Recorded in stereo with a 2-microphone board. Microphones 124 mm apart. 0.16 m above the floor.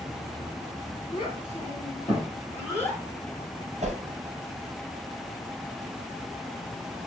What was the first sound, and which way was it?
A child speaking, 45° left (ahead or behind).